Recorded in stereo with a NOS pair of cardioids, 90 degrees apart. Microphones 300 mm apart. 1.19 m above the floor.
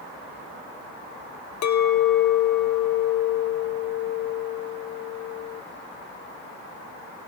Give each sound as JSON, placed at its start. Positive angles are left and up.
{"t": 1.6, "sound": "a clink", "azimuth_deg": 60, "distance_m": 0.8}